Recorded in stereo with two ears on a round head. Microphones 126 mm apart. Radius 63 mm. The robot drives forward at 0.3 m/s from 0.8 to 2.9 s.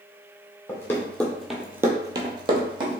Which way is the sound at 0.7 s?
15° left (ahead or behind).